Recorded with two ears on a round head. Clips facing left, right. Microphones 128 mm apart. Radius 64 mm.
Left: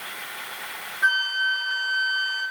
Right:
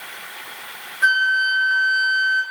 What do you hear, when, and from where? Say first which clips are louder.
1.0 s a flute: right 6 dB; 70° right (ahead or behind), 2.5 m